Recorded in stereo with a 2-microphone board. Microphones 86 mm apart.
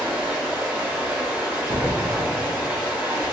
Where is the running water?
25° right (ahead or behind), 1.6 m.